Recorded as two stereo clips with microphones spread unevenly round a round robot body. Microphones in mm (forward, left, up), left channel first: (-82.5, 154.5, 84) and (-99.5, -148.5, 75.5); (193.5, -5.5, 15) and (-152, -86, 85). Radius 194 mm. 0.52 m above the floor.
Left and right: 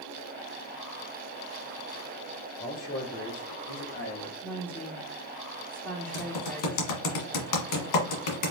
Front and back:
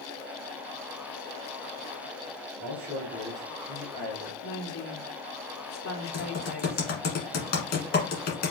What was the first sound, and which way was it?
A man speaking, 135° left.